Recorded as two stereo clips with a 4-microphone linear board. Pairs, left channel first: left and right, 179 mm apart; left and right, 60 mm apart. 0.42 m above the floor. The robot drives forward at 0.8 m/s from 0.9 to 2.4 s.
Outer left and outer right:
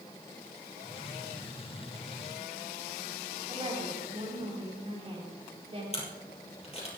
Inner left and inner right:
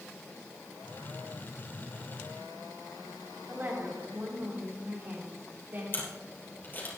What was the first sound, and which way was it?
A woman speaking, 40° right (ahead or behind).